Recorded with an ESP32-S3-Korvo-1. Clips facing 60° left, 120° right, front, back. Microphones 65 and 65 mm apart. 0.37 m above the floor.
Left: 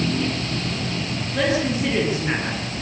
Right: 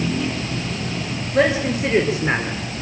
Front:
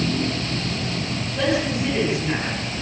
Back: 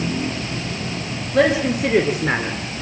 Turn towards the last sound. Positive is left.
turn(degrees=170)